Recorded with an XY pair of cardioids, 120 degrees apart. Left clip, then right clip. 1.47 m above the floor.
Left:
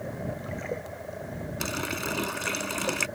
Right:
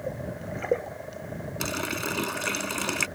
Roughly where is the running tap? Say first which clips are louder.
Right 1 dB; ahead.